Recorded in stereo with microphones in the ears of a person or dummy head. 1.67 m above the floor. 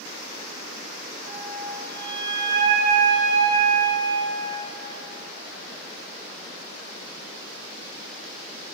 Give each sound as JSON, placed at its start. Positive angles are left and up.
{"t": 1.3, "sound": "a flute", "side_deg": -55, "distance_m": 7.5}